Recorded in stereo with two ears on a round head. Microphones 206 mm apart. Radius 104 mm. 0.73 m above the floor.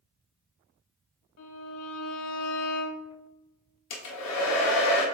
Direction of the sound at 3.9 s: 85° left.